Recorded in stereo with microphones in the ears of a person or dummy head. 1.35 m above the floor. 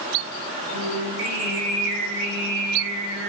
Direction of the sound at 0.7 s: 70° right (ahead or behind).